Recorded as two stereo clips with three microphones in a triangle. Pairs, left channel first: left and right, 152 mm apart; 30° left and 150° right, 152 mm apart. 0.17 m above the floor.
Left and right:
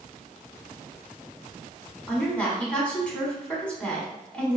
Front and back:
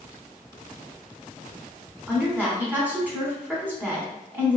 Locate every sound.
2.1 s a woman speaking: 155° left, 1.0 m